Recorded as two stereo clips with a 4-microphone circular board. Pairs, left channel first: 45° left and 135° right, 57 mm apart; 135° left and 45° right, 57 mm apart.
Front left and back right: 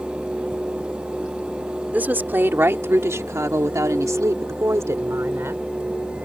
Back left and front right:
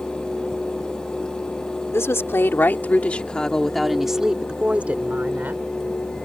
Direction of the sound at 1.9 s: 165° left.